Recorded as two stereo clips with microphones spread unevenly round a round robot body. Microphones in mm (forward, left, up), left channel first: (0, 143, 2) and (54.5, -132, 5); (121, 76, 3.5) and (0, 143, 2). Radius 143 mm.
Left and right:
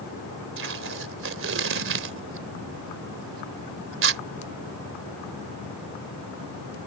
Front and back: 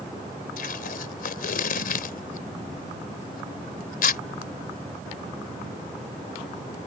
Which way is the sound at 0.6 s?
35° right.